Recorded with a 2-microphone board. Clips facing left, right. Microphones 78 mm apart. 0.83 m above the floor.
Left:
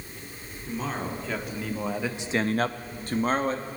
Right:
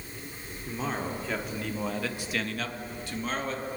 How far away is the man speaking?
About 2 m.